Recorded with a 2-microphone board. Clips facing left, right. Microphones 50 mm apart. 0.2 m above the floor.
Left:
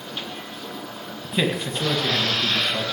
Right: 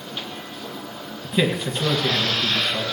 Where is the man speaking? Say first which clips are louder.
Right 2 dB; 5° left (ahead or behind), 1.7 m.